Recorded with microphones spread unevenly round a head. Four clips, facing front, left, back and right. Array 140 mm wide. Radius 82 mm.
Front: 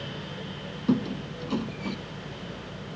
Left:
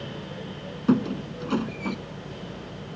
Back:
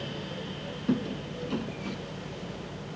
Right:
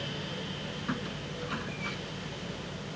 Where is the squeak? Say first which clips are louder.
Left 16 dB, front 3 dB; 90° left.